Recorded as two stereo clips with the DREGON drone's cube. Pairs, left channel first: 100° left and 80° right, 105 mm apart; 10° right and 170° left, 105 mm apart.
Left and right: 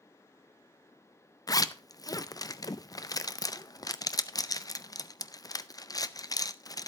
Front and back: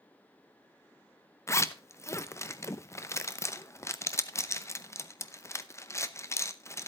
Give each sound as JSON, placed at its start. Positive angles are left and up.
{"t": 1.5, "sound": "a zipper", "azimuth_deg": 45, "distance_m": 0.5}